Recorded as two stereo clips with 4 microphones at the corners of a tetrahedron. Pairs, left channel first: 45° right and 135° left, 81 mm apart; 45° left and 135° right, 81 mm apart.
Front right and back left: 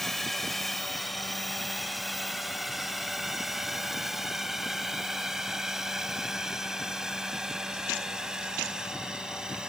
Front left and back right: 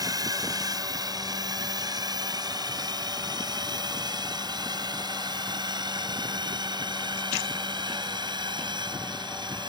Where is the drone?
130° right; by 9.7 s 145° right.